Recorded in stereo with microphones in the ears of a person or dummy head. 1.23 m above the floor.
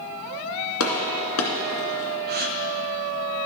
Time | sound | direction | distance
0.8 | a gunshot | 75° left (ahead or behind) | 2.0 m
2.3 | a gasp | 50° right (ahead or behind) | 1.0 m